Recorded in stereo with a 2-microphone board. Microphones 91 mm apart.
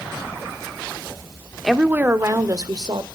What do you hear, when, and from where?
1.6 s a woman speaking: 5° right (ahead or behind), 0.8 m; by 3.0 s 55° right (ahead or behind), 1.4 m